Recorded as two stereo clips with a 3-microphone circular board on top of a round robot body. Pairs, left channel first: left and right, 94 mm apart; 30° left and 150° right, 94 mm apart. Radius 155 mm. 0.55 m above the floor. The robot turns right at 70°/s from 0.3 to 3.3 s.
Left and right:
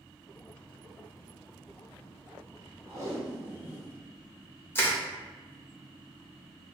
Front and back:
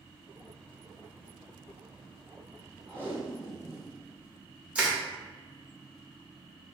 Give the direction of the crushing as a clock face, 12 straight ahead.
7 o'clock.